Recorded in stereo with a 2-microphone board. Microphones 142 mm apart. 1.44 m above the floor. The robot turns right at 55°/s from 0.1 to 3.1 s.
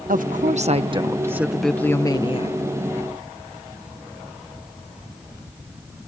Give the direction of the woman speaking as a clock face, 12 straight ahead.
3 o'clock.